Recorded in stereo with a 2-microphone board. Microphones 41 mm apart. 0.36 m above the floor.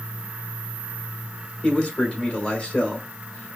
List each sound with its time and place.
1.6 s a man speaking: 25° left (ahead or behind), 1.3 m